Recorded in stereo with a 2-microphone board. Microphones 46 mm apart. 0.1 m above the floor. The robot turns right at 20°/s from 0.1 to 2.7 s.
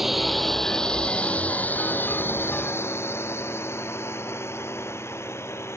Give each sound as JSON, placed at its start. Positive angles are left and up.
{"t": 0.0, "sound": "a drone", "side_deg": -5}